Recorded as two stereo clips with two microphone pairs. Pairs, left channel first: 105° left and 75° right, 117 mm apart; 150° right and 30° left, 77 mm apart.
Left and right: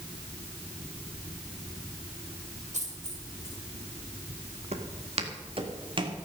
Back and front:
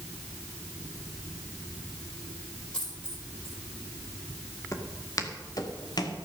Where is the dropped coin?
75° right, 7 m.